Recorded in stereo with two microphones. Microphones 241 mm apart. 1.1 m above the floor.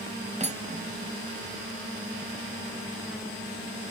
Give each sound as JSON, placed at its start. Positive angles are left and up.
{"t": 0.4, "sound": "cutlery clinking", "side_deg": -30}